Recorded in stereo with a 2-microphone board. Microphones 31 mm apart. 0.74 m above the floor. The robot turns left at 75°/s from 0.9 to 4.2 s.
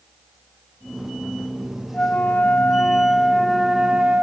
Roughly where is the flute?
Behind left.